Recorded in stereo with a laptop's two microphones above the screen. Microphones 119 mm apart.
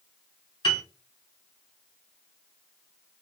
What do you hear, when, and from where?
0.6 s a piano: 45° left (ahead or behind), 1.5 m